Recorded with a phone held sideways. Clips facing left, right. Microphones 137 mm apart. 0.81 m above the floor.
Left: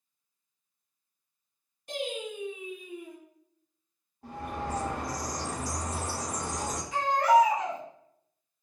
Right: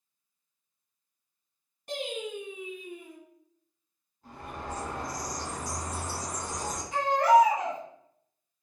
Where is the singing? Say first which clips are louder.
Even; 55° right (ahead or behind), 1.5 m.